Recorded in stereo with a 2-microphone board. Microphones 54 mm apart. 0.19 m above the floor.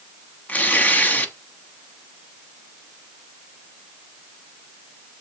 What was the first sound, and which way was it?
Tearing paper, 30° left (ahead or behind).